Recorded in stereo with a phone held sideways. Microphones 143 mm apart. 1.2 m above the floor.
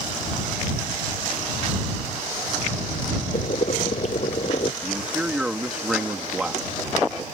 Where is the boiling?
50° left (ahead or behind).